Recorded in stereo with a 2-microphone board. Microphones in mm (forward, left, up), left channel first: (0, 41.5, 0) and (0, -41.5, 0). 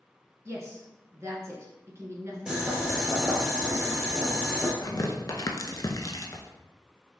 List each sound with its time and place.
0.5 s a woman speaking: 35° right (ahead or behind), 1.5 m
2.5 s boiling: 10° right (ahead or behind), 1.4 m
4.8 s tearing paper: 45° left (ahead or behind), 0.7 m